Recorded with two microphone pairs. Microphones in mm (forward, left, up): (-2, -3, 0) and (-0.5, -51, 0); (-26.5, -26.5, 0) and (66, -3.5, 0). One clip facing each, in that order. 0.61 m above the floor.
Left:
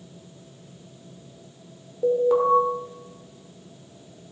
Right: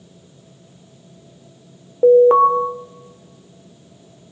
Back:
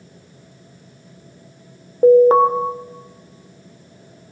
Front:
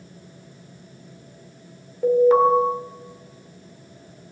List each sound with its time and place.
2.0 s an alarm: 125° right, 1.2 m